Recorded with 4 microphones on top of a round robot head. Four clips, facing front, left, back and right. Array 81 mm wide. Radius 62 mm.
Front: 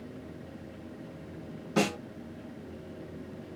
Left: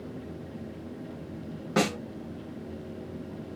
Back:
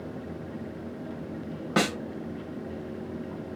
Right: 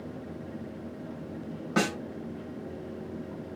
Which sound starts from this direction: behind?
A snare drum, at 1.8 s.